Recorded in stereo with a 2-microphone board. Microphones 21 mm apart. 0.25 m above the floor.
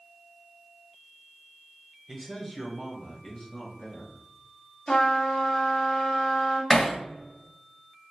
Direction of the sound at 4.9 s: 35° left (ahead or behind).